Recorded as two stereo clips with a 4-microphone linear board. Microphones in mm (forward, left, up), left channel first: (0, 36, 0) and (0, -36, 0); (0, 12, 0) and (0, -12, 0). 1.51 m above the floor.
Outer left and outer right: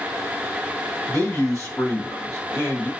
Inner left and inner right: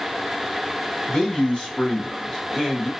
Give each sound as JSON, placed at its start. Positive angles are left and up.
{"t": 1.1, "sound": "a man speaking", "side_deg": 45, "distance_m": 2.0}